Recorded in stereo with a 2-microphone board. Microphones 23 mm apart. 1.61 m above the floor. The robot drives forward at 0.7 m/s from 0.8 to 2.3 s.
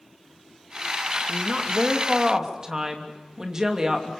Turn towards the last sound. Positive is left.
turn(degrees=-20)  # may be behind; listen again after turning